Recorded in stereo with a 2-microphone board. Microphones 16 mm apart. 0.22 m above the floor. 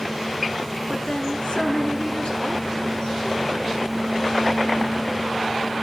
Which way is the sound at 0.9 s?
60° left (ahead or behind).